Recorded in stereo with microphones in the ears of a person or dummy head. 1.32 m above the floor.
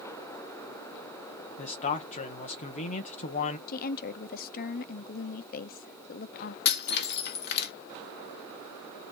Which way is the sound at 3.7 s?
45° left (ahead or behind).